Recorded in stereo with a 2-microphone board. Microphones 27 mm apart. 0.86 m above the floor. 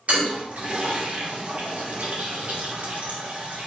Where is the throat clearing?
I don't hear throat clearing.